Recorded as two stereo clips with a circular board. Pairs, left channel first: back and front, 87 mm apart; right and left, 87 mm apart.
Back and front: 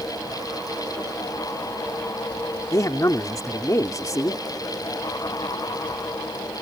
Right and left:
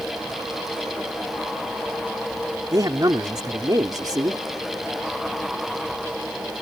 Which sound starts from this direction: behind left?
A man speaking, at 2.7 s.